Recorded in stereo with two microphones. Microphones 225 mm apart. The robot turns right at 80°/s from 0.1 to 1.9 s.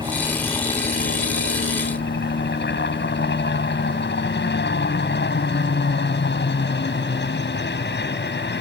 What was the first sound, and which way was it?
A helicopter, 20° right.